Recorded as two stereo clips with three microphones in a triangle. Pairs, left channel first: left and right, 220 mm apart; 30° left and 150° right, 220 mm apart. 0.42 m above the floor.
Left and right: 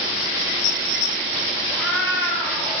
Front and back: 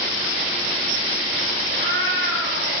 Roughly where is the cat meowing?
Behind.